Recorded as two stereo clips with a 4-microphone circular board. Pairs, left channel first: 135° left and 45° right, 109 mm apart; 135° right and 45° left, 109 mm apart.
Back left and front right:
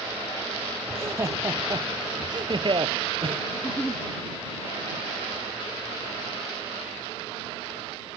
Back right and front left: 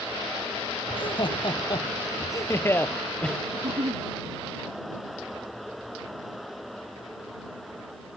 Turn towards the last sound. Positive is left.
turn(degrees=60)